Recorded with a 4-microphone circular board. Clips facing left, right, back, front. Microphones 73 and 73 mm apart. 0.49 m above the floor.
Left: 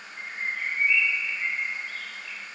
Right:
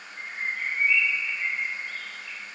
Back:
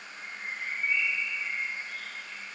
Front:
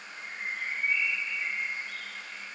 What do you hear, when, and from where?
0.2 s a bird: straight ahead, 2.5 m